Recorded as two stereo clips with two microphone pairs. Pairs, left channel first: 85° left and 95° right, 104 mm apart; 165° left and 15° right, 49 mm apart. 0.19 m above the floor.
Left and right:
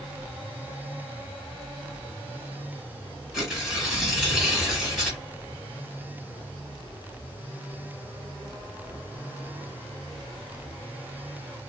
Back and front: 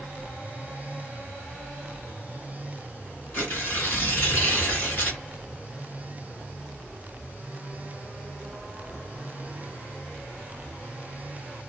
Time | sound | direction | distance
3.3 | tearing paper | 175° left | 2.5 m